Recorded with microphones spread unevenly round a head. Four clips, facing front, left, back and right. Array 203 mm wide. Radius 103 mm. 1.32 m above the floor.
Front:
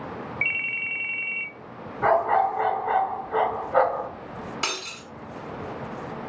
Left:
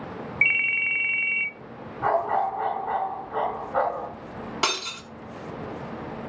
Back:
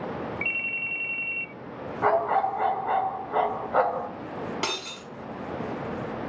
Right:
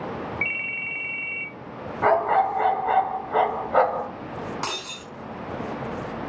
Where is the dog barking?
110° right, 5 m.